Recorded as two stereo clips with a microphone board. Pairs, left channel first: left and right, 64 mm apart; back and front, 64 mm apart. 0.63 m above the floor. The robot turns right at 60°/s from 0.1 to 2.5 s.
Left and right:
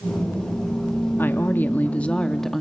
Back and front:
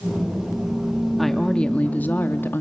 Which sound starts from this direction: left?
A woman speaking, at 1.2 s.